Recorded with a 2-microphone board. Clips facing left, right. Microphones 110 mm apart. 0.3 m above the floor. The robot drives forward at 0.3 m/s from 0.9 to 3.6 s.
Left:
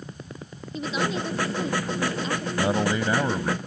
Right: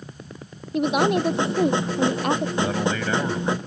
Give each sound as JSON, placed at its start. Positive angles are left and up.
{"t": 0.7, "sound": "a woman speaking", "side_deg": -65}
{"t": 2.6, "sound": "a man speaking", "side_deg": 25}